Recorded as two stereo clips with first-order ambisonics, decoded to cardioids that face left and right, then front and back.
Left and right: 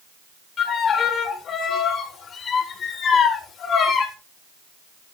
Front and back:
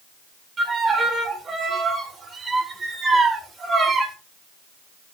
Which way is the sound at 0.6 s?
120° left.